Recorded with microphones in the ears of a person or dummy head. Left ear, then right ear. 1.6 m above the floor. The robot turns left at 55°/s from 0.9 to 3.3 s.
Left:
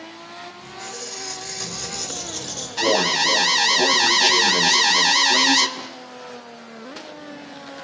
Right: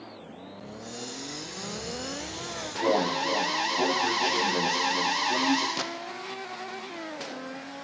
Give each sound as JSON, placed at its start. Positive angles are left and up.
{"t": 0.6, "sound": "a squeak", "azimuth_deg": 125, "distance_m": 4.5}
{"t": 2.8, "sound": "an alarm", "side_deg": 65, "distance_m": 1.9}
{"t": 5.8, "sound": "a gunshot", "side_deg": -55, "distance_m": 2.0}